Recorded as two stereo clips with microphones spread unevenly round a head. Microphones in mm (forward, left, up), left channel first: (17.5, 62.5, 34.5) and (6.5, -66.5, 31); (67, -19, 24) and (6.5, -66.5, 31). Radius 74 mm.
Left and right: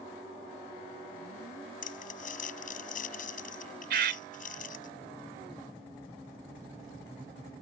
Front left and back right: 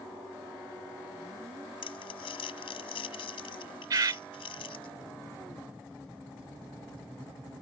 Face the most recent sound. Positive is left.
turn(degrees=-120)